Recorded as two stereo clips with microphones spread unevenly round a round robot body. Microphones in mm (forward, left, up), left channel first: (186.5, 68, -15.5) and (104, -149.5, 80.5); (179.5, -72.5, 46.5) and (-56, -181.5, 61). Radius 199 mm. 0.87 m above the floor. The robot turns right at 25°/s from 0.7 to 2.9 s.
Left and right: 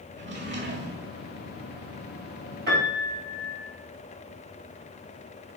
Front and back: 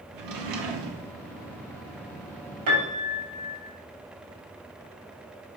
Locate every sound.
0.1 s a drawer: straight behind, 1.2 m; by 1.1 s 170° right, 1.2 m
2.7 s a piano: 175° right, 2.5 m; by 3.6 s 170° right, 2.5 m